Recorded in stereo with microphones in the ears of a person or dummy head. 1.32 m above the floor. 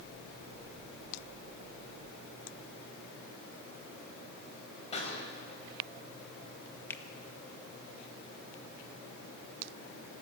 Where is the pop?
35° left (ahead or behind), 5 m.